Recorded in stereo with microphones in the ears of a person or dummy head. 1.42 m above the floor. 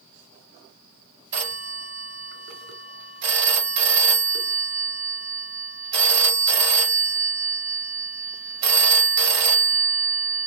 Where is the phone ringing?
55° right (ahead or behind), 1.3 m.